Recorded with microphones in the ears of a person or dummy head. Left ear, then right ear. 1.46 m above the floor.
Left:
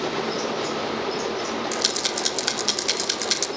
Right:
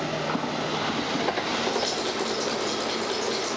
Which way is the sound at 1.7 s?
80° left.